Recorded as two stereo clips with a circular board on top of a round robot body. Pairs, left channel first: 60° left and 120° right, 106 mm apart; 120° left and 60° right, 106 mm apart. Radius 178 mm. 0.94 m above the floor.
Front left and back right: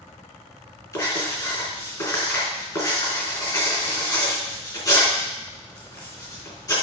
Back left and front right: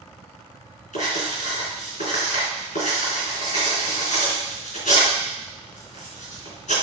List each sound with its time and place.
0.9 s writing: 120° left, 4 m